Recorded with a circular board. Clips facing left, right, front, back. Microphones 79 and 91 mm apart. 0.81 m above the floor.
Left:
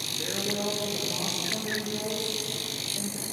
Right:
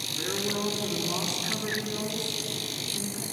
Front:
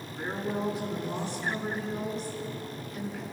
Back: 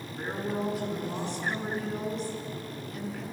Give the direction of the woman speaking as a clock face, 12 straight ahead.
3 o'clock.